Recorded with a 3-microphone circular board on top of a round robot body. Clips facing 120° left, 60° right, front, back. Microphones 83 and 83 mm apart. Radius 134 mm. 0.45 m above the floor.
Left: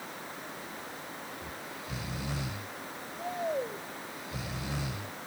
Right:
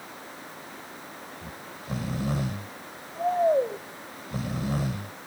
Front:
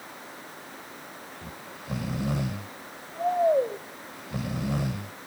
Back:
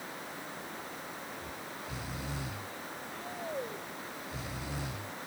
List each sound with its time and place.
1.4 s snoring: 20° right